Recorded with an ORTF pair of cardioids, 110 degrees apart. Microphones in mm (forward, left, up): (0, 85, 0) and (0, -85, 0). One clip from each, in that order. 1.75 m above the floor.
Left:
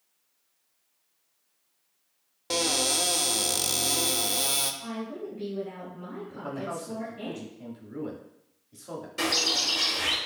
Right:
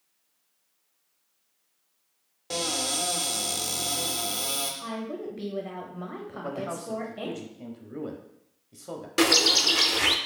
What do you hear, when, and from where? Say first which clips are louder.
2.5 s a cupboard door: left 3 dB; 25° left, 0.5 m
4.8 s a woman speaking: right 2 dB; 70° right, 0.8 m
6.3 s a man speaking: right 1 dB; 20° right, 0.6 m
9.2 s a bird: right 5 dB; 60° right, 0.5 m